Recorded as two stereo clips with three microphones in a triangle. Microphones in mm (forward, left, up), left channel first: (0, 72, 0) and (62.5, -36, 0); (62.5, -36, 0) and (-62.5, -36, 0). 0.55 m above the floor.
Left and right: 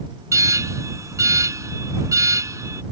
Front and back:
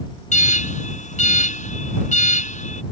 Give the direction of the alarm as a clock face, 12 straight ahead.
12 o'clock.